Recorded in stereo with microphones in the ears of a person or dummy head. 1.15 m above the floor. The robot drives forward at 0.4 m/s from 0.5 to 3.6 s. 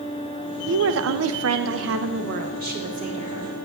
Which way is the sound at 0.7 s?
65° right (ahead or behind).